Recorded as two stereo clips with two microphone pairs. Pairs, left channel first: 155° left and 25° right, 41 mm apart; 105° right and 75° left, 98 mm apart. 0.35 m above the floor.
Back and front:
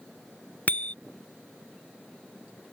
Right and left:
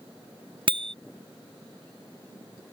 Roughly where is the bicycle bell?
Left.